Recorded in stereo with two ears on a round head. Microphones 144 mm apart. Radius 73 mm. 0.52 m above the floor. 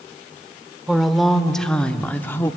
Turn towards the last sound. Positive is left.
turn(degrees=15)  # may be behind; listen again after turning